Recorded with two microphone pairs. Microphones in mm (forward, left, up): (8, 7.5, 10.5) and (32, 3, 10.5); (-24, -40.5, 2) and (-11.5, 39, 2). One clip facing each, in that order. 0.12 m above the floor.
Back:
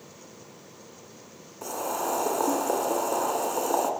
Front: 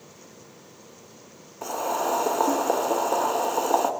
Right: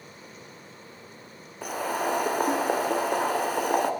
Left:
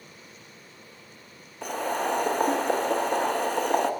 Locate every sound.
1.6 s boiling: 25° right, 0.6 m